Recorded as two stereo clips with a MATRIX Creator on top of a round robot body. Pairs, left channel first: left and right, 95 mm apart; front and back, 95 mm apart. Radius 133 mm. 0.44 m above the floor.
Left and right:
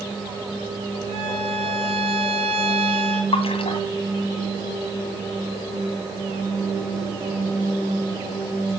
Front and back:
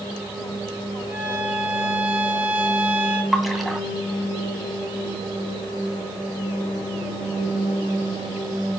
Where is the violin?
110° right, 3 m.